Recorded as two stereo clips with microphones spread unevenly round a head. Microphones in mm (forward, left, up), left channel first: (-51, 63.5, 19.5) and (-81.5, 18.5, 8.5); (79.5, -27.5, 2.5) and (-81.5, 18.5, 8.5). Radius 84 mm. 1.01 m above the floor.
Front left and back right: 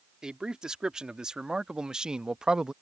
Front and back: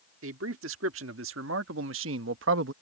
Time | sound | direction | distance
0.2 | a man speaking | 160° left | ?